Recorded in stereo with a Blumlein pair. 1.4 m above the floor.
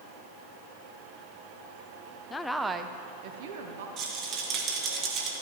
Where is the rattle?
35° right, 1.2 m.